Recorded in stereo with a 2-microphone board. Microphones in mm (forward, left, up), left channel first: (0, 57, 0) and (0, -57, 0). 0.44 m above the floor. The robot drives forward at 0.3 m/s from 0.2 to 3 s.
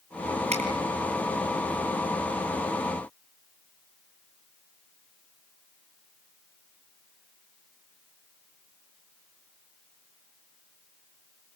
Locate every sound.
0.5 s a finger snap: 80° right, 8 m